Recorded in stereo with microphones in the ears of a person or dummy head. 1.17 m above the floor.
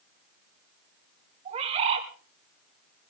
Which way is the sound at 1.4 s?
40° right (ahead or behind).